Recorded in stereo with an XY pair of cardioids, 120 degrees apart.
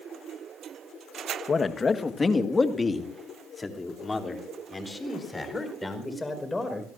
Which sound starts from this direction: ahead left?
A man speaking, at 1.5 s.